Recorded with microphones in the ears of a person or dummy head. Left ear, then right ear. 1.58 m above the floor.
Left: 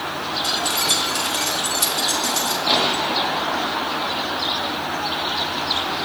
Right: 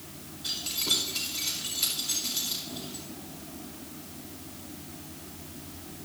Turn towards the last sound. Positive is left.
turn(degrees=80)